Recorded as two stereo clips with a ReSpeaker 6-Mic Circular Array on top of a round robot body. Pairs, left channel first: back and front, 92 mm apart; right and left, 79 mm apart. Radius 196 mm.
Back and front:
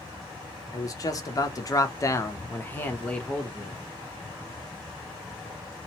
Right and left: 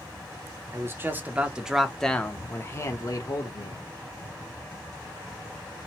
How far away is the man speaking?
About 1.1 m.